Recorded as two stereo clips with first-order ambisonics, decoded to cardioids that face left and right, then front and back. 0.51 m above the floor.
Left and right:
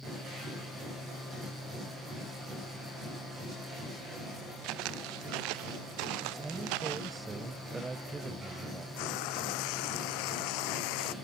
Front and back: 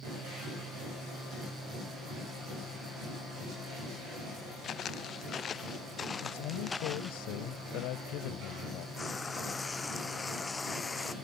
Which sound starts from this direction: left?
Frying, at 9.0 s.